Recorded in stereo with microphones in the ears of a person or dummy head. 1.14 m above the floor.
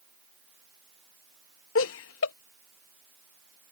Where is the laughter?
75° left (ahead or behind).